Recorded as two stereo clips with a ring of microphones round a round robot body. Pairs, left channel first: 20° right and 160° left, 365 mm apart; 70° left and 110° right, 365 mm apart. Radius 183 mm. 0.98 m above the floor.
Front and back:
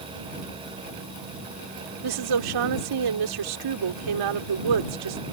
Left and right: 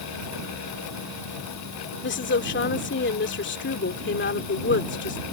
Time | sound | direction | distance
2.0 | a woman speaking | 130° left | ?